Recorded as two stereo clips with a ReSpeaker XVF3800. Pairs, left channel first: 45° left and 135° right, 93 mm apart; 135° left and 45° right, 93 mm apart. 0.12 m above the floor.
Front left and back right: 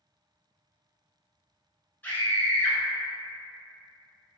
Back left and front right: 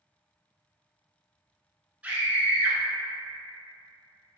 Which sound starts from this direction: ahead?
A scream, at 2.0 s.